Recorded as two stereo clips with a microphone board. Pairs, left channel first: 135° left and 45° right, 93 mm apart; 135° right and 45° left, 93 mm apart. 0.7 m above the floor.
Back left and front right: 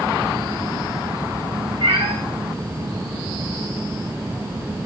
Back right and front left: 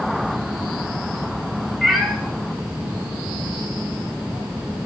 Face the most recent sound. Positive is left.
turn(degrees=-45)